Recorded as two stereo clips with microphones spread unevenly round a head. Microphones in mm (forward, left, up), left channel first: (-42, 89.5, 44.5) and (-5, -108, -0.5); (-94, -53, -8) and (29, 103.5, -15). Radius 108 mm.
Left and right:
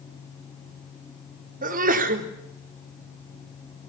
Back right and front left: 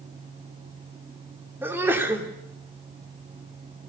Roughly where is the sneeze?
Ahead right.